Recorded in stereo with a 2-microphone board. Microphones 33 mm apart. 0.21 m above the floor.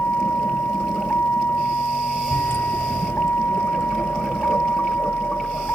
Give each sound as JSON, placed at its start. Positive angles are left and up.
{"t": 0.0, "sound": "a vehicle", "side_deg": 85}